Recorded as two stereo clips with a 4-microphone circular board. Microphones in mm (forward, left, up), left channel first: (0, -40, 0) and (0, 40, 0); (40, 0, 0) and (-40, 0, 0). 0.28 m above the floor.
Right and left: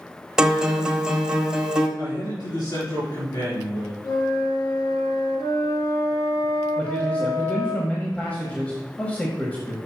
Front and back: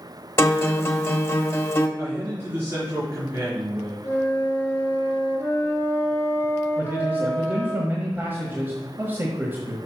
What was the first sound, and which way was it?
A guitar, 20° left.